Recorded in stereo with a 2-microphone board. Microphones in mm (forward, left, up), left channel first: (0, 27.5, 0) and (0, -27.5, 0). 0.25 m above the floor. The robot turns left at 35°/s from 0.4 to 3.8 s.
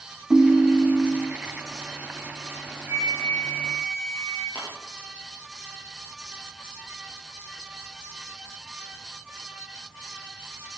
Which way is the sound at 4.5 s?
35° left (ahead or behind).